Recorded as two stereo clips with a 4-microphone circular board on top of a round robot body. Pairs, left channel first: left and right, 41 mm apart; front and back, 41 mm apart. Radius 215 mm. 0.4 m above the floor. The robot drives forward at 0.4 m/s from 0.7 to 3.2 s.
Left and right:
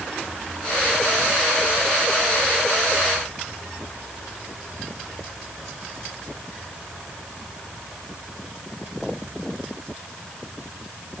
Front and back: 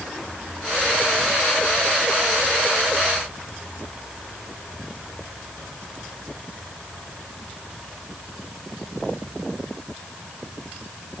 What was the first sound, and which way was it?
Only background noise.